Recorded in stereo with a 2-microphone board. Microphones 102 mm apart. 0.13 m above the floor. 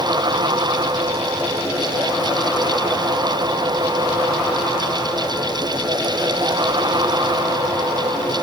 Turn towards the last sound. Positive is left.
No sound to turn to.